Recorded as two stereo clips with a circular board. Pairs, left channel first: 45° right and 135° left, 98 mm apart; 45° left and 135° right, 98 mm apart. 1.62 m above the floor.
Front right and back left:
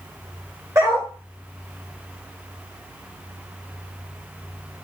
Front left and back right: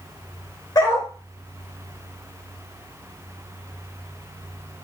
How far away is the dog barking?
About 2 m.